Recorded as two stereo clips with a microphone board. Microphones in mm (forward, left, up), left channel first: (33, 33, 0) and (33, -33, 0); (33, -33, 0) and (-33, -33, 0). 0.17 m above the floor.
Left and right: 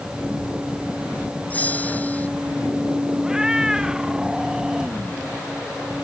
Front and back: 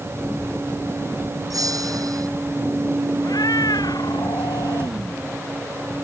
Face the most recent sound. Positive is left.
turn(degrees=-10)